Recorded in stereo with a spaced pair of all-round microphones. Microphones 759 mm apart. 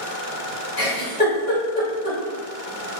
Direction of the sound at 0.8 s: 30° left (ahead or behind).